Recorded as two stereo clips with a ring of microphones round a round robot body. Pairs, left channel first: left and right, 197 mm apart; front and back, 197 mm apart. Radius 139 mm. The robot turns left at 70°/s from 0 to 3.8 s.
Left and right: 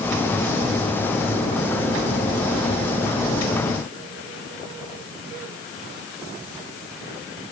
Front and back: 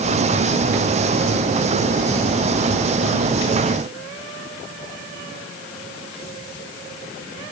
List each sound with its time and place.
Only background noise.